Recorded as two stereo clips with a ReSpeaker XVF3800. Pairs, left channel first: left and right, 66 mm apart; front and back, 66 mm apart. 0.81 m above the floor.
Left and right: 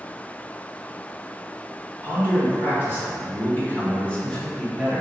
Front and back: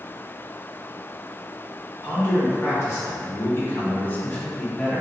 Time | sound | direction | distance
2.0 | a man speaking | 45° left | 1.7 m